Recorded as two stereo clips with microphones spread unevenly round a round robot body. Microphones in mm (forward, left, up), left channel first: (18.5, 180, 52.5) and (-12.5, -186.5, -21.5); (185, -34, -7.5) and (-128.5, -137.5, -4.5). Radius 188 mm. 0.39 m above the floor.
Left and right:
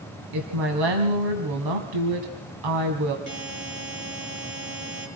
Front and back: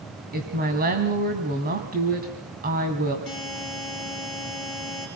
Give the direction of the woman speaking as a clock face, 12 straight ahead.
3 o'clock.